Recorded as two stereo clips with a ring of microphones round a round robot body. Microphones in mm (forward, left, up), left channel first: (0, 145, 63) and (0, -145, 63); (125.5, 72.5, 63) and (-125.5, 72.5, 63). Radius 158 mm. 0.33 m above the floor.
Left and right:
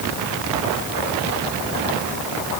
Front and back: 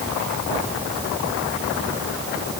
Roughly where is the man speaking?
No man speaking in this recording.